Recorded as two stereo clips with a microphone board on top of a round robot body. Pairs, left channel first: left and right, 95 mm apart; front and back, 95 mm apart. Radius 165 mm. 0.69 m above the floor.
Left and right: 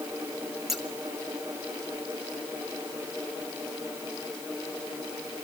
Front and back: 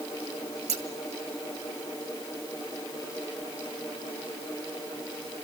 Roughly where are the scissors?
Behind.